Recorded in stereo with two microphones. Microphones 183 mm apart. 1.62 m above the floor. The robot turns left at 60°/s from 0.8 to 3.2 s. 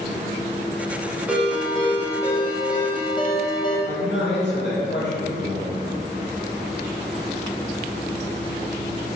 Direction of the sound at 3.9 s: 70° left (ahead or behind).